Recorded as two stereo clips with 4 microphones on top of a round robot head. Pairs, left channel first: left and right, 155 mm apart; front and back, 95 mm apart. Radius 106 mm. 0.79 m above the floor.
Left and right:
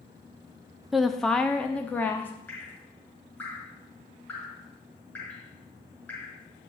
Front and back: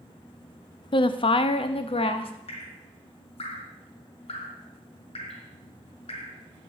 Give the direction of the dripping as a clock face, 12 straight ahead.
12 o'clock.